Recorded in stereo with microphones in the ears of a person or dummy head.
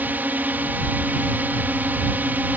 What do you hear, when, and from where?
0.0 s a drone: 5° right (ahead or behind)